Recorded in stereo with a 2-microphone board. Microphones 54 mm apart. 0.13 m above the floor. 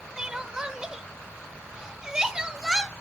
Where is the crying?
15° right (ahead or behind), 0.7 m.